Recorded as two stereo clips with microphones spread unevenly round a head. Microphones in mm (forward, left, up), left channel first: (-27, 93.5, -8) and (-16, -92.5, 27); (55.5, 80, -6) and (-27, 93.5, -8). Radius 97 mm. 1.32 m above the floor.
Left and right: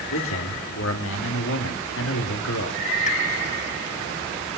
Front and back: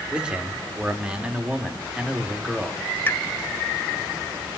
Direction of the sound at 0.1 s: 95° left.